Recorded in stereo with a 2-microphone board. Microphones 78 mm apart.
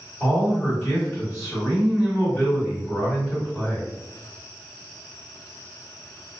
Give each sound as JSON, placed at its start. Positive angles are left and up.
{"t": 0.2, "sound": "a man speaking", "side_deg": 5, "distance_m": 1.5}